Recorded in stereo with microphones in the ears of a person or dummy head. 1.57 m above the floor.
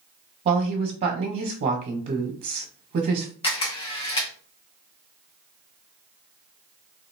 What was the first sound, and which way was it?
A woman speaking, 40° right (ahead or behind).